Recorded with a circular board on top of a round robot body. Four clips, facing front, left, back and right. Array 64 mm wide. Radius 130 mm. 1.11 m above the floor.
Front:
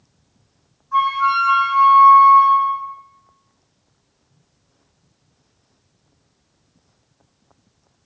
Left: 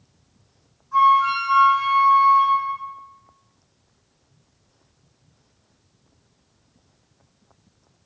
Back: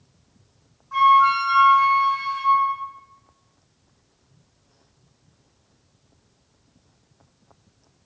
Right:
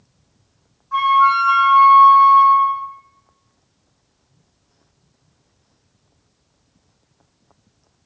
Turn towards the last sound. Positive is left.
turn(degrees=-125)